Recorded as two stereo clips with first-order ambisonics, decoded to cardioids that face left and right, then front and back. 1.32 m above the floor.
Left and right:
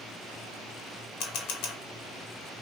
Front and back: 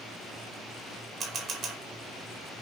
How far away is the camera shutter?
About 1.9 m.